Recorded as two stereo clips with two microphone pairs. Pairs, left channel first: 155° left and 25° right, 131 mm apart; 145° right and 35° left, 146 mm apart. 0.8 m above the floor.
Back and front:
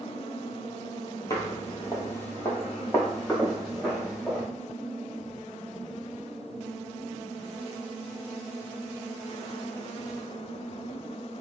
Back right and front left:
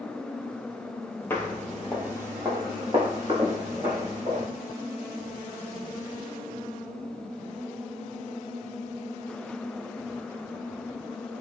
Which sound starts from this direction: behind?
Footsteps, at 1.3 s.